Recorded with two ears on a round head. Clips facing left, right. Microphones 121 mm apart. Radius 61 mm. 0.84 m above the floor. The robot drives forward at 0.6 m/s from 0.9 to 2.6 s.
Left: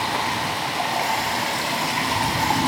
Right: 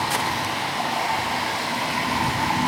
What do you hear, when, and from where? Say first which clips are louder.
0.0 s running water: even; 25° left (ahead or behind), 2.5 m; by 2.7 s 35° left (ahead or behind), 1.6 m